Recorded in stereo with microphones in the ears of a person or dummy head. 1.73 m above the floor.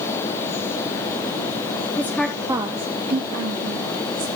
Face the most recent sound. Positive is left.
turn(degrees=-75)  # may be behind; listen again after turning